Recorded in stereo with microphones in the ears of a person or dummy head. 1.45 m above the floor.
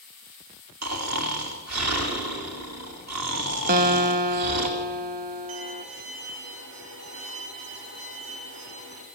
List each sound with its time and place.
0.8 s snoring: 80° right, 3 m
3.7 s a guitar: 50° right (ahead or behind), 1.1 m
5.5 s a violin: 85° right, 5.5 m